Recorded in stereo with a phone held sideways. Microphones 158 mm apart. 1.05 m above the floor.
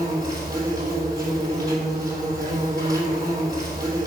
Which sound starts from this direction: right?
An insect, at 0.0 s.